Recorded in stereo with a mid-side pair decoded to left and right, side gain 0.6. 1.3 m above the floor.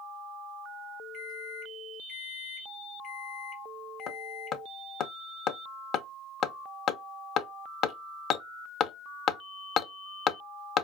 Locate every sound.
1.1 s a microwave: 50° left, 0.8 m
4.1 s hammering: 55° left, 0.6 m